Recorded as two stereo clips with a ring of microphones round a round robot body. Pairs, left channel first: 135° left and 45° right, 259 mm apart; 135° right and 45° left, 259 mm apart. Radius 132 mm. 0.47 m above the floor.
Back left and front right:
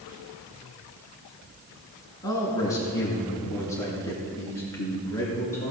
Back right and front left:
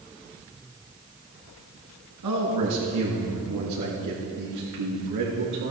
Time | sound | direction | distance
2.2 | a man speaking | 60° left | 5 m